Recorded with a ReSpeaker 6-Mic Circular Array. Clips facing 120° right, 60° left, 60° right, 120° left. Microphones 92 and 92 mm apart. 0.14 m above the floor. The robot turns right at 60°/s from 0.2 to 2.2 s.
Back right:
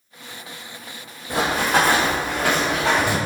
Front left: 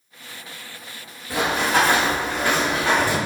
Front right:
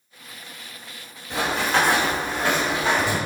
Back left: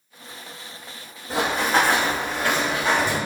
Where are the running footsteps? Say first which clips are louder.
Back right 1 dB, back left 1 dB; 175° left, 0.7 m; by 3.2 s 135° right, 1.7 m.